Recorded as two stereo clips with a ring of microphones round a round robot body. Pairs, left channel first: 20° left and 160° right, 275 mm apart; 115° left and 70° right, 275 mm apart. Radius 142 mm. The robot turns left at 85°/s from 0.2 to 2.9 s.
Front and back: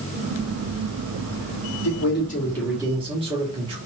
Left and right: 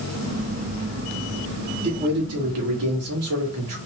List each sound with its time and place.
1.8 s a man speaking: straight ahead, 2.5 m; by 3.8 s 90° right, 2.5 m